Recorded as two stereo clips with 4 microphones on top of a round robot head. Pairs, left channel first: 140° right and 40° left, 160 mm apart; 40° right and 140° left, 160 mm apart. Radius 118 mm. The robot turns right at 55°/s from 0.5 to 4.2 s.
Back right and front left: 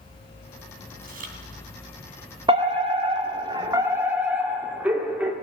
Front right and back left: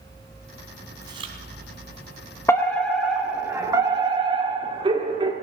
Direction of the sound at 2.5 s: 20° left.